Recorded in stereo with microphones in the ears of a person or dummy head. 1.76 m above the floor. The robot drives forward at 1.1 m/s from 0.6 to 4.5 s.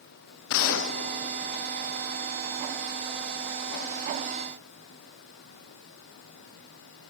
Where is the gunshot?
70° left (ahead or behind); by 2.1 s 25° left (ahead or behind).